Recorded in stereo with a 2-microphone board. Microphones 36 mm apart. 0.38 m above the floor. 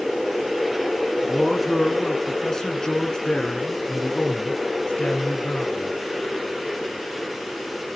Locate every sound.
1.2 s a man speaking: 5° left (ahead or behind), 4 m; by 5.9 s 40° left (ahead or behind), 4.5 m